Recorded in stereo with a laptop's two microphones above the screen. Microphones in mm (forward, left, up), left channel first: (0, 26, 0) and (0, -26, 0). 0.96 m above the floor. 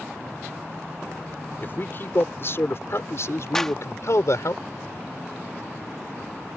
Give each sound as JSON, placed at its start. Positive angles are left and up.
{"t": 1.6, "sound": "a man speaking", "side_deg": 40}
{"t": 3.5, "sound": "a clap", "side_deg": 10}